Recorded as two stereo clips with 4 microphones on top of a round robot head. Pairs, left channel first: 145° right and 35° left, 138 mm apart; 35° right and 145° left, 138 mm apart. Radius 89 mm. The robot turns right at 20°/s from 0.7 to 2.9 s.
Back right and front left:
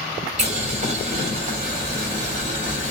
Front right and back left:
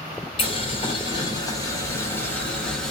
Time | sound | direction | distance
0.4 | boiling | 10° left | 1.4 m